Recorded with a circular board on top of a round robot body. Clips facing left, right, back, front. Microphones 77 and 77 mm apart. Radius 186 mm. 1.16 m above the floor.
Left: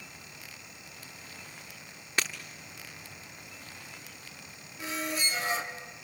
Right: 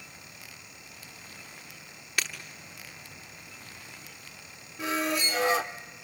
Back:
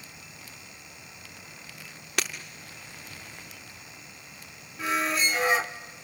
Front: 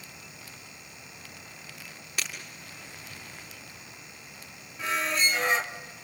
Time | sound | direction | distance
2.2 | breaking glass | 155° left | 0.5 m
4.8 | a squeak | 95° right | 0.7 m